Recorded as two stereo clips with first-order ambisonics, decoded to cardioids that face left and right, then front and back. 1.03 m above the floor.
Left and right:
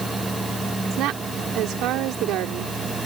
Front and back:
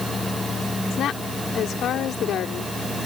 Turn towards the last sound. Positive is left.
turn(degrees=-55)